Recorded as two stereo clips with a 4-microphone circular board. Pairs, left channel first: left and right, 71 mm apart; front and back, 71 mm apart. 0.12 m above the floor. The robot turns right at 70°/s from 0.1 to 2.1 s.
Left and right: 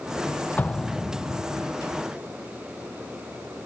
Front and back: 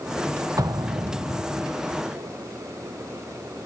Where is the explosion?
150° left; by 1.7 s 130° right.